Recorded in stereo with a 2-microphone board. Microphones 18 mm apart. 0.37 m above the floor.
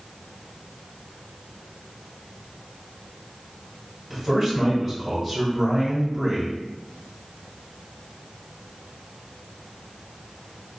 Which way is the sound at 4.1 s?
5° right (ahead or behind).